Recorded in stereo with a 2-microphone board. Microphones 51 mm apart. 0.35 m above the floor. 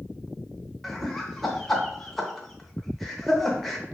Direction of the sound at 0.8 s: Centre (ahead or behind).